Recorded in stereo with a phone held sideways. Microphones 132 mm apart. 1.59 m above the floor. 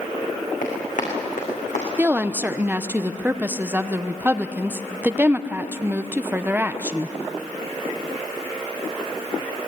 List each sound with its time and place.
0.6 s running footsteps: 80° left, 7.5 m; by 1.9 s 75° left (ahead or behind), 6.5 m
2.0 s a woman speaking: 15° right (ahead or behind), 0.9 m